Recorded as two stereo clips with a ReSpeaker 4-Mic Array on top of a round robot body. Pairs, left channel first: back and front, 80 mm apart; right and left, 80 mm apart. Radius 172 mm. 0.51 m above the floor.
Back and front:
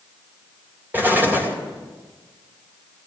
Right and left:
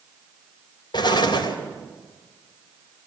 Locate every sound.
0.9 s an explosion: 65° right, 3.5 m